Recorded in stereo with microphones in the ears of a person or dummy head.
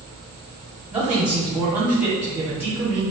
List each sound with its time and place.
0.9 s a man speaking: 10° right (ahead or behind), 1.2 m